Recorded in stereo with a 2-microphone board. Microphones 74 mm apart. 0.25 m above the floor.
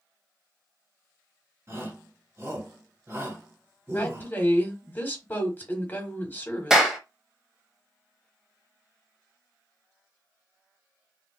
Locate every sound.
1.7 s a shout: 35° right (ahead or behind), 2 m
3.9 s a woman speaking: 25° left (ahead or behind), 1.1 m
6.7 s a clap: 5° right (ahead or behind), 0.8 m